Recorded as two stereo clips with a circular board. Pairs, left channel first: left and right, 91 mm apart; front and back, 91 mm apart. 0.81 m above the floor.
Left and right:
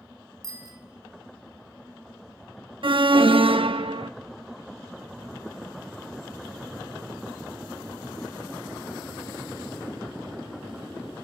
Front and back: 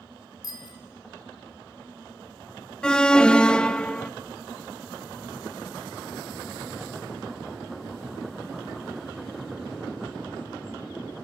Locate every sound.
0.4 s a bicycle bell: 40° right, 2 m
2.8 s an alarm: 80° right, 0.6 m